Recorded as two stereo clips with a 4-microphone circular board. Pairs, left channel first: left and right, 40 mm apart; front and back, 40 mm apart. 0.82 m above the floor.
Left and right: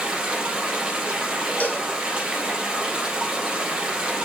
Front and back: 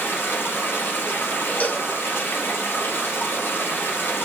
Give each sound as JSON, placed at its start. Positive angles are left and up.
{"t": 0.0, "sound": "running water", "azimuth_deg": -20, "distance_m": 3.0}
{"t": 1.6, "sound": "a cowbell", "azimuth_deg": 45, "distance_m": 1.1}